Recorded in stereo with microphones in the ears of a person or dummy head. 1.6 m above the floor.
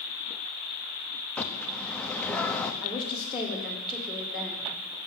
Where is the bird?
10° left (ahead or behind), 0.8 m.